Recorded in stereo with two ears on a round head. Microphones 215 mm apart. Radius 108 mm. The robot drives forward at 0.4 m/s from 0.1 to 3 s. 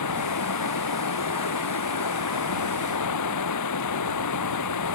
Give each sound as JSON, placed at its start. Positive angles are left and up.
{"t": 0.0, "sound": "running water", "side_deg": 85}